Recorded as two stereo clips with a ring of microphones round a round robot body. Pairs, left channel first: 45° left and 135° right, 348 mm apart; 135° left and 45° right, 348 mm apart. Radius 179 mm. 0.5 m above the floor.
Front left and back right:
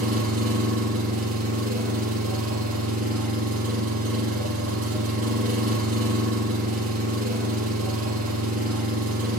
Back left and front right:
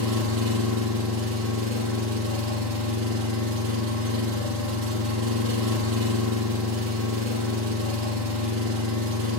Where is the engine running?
85° right, 5.5 m.